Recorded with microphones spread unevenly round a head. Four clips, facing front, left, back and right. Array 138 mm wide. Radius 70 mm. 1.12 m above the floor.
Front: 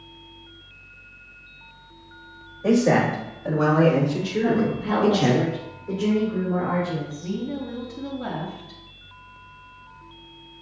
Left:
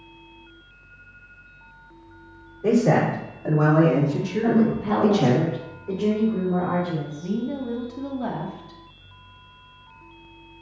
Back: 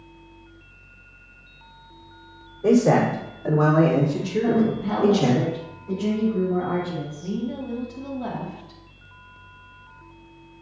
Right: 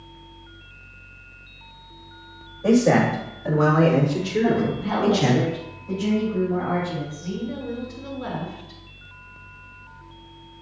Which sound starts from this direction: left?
A woman speaking, at 4.4 s.